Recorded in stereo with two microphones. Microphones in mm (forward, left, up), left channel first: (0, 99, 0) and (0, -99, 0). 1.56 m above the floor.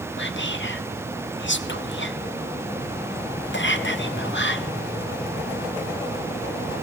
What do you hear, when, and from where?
0.2 s whispering: 70° left (ahead or behind), 0.7 m